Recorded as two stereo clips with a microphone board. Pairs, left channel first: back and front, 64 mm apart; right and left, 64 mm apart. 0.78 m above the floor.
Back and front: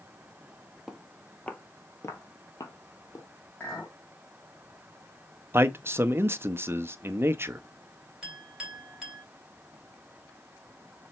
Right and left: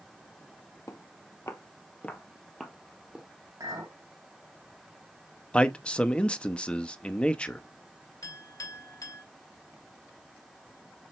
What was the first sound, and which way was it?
Footsteps, 85° right.